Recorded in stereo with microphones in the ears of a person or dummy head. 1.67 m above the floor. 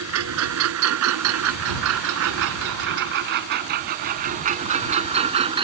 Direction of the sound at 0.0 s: 80° right.